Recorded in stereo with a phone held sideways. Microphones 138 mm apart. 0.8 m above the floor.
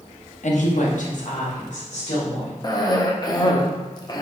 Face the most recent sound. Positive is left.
turn(degrees=30)  # may be behind; listen again after turning